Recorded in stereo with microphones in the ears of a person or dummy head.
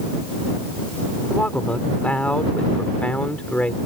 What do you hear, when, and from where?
1.3 s a man speaking: 5° left (ahead or behind)